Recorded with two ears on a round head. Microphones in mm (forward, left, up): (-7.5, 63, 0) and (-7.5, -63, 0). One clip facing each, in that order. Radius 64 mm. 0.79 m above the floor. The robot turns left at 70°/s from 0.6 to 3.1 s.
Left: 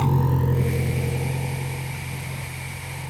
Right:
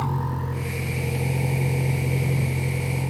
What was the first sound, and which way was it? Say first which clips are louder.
A vehicle: left 5 dB; 25° left (ahead or behind).